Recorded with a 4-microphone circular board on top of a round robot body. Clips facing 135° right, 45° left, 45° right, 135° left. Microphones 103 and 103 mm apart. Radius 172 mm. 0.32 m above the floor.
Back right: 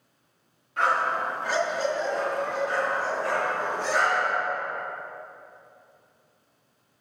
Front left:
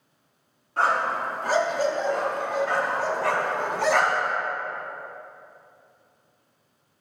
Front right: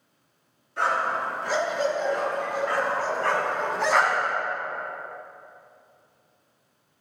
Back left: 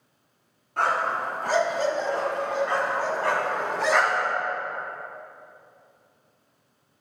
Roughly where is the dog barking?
Left.